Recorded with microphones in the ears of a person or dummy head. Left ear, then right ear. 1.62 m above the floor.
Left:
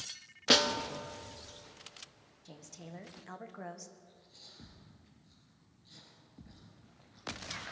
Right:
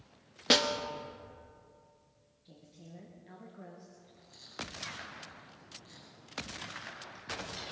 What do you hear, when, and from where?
0.5 s a snare drum: centre (ahead or behind), 0.5 m
2.5 s a woman speaking: 50° left (ahead or behind), 1.2 m
4.0 s chewing: 55° right (ahead or behind), 5 m